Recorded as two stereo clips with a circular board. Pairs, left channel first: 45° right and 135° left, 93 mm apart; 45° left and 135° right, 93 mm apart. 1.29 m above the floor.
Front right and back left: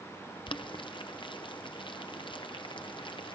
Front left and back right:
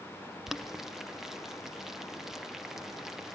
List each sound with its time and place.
0.5 s boiling: 50° right, 0.7 m